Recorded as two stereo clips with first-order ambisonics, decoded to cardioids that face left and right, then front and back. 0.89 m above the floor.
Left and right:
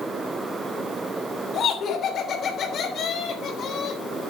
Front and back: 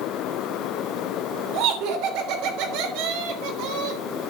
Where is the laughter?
155° left, 3 m.